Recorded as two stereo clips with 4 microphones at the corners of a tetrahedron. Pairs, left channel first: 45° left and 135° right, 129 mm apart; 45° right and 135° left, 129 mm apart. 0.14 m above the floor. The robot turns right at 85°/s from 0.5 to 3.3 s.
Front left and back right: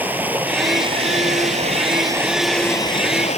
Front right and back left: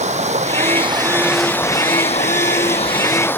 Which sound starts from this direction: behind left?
Running water, at 0.0 s.